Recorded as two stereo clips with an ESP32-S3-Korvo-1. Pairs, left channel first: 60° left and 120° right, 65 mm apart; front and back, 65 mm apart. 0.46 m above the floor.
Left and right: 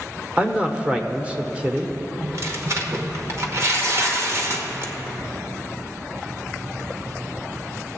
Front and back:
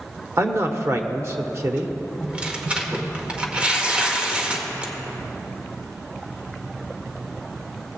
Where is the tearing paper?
115° right, 1.1 m.